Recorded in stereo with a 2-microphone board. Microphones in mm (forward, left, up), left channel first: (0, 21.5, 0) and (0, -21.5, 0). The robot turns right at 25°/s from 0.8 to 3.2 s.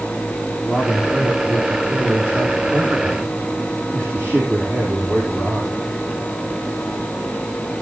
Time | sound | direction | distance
0.6 | a man speaking | 175° left | 3.5 m